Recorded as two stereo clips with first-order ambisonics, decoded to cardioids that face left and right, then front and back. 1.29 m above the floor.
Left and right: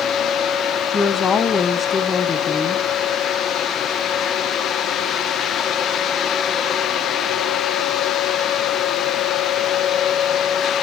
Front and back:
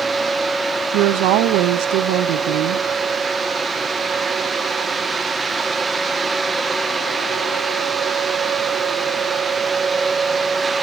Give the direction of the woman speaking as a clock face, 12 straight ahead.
7 o'clock.